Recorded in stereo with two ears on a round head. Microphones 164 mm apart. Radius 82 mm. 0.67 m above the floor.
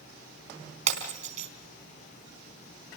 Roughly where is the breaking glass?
Right.